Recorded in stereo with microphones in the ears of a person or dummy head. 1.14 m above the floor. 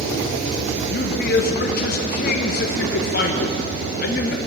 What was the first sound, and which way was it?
A man speaking, 50° left (ahead or behind).